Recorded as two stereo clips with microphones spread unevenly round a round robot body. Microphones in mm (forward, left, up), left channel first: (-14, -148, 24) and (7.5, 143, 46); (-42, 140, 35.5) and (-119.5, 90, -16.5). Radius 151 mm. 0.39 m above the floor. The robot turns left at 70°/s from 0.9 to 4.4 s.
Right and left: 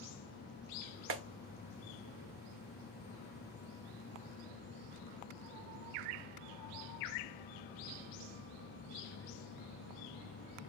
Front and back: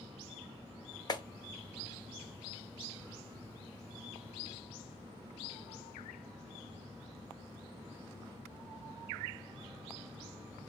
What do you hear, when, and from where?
1.1 s a clap: 105° left, 0.8 m; by 1.2 s 95° left, 0.8 m